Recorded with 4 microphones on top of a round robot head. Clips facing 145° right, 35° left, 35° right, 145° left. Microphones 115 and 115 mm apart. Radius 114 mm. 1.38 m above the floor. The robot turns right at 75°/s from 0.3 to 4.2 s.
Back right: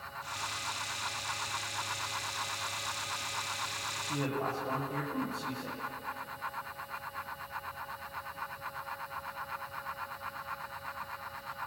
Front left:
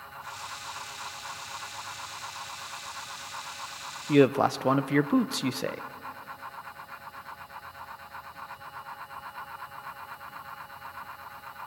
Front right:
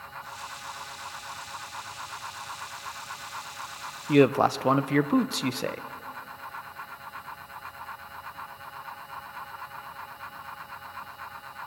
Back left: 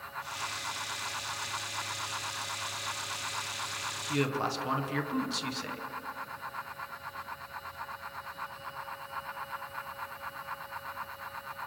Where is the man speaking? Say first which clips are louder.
Front left 14 dB, front right 11 dB; straight ahead, 0.6 m; by 5.8 s 10° left, 0.6 m.